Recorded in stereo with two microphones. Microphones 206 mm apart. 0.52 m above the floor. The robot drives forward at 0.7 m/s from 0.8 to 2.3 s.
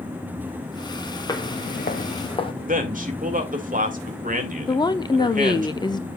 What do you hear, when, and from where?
1.3 s footsteps: 20° left (ahead or behind), 1.1 m; by 2.5 s 25° left (ahead or behind), 1.3 m
2.7 s a man speaking: 40° right (ahead or behind), 1.9 m
4.7 s a woman speaking: 20° left (ahead or behind), 0.7 m